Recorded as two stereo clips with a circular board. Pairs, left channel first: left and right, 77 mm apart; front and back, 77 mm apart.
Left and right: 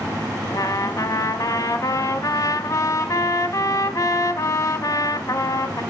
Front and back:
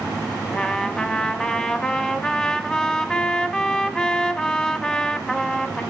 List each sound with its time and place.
0.5 s a trumpet: 80° left, 0.8 m